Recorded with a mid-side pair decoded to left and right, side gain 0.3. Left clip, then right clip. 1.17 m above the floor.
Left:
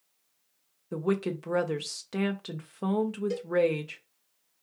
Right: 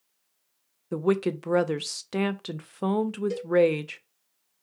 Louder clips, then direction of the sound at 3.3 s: Right 2 dB; 25° right.